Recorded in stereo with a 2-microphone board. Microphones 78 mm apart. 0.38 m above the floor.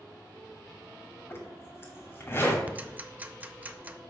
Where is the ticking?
20° right (ahead or behind), 0.5 m.